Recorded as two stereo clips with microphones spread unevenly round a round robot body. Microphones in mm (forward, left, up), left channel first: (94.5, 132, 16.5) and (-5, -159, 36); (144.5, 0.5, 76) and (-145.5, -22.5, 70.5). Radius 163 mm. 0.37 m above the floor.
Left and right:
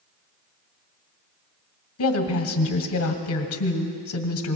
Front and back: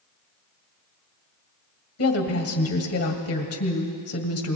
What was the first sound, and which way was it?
A woman speaking, 40° left.